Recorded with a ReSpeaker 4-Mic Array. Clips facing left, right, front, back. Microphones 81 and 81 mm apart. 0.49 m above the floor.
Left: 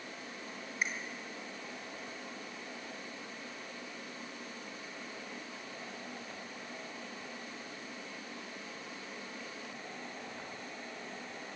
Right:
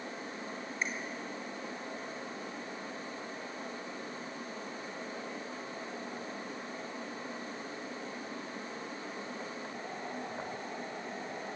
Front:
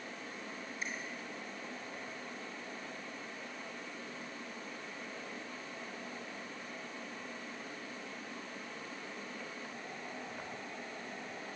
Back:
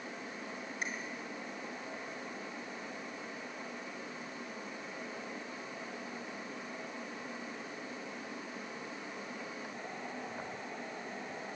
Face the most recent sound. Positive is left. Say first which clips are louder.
# left 1 dB, back 2 dB
turn(degrees=170)